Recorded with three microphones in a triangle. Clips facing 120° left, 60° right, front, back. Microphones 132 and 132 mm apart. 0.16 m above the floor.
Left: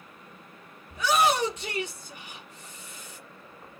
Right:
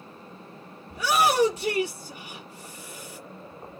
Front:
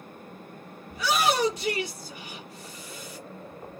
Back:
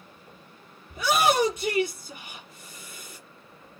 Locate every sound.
0.9 s a shout: 115° right, 3.5 m